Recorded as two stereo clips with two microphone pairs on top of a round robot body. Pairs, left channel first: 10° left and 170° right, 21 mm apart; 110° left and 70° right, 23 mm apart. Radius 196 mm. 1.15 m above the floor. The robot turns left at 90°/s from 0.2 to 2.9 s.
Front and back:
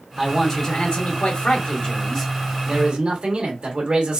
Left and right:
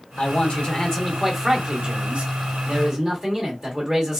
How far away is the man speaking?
About 1.2 m.